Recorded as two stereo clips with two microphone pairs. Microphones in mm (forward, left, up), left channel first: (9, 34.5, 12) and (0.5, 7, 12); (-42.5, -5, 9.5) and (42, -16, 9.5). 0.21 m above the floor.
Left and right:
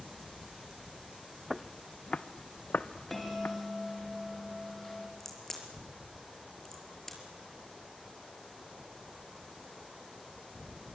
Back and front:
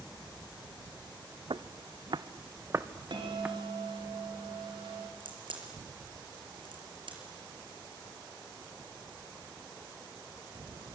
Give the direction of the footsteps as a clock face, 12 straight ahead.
1 o'clock.